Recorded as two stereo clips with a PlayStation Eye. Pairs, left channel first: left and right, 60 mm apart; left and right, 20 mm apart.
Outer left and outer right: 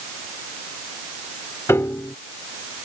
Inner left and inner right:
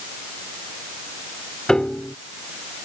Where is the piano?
50° left (ahead or behind).